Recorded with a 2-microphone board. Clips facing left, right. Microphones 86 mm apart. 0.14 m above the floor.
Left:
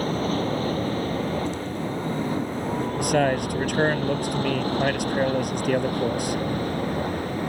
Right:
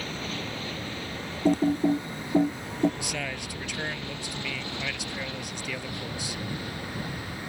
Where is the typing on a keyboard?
55° right (ahead or behind).